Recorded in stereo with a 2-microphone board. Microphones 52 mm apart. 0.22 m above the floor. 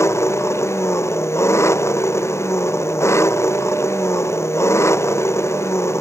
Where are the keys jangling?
I don't hear keys jangling.